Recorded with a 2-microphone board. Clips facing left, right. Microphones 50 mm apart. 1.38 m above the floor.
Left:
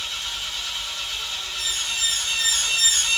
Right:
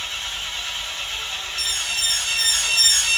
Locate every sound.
0.0 s an engine running: 40° right (ahead or behind), 1.5 m
1.6 s an alarm: 75° right (ahead or behind), 0.8 m